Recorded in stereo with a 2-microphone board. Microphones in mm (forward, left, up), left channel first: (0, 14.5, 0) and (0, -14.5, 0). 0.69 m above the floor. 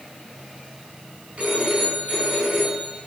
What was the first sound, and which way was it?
A phone ringing, 50° right (ahead or behind).